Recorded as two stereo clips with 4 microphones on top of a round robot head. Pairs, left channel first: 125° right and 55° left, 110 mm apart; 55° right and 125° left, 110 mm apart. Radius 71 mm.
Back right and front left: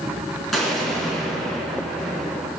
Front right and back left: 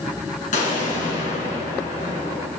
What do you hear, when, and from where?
0.5 s an explosion: 35° right, 3 m